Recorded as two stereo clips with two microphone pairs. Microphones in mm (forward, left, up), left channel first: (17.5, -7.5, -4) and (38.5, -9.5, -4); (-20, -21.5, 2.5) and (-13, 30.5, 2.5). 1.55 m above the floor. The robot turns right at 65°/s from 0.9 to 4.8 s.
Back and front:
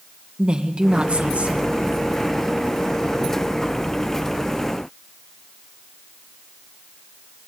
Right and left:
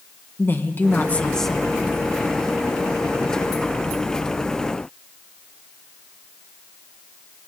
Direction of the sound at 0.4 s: 50° right.